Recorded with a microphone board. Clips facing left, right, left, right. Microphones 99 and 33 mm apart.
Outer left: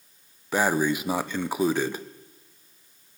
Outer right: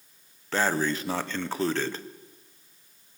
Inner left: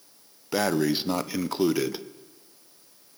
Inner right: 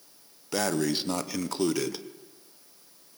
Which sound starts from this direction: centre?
Breathing, at 0.5 s.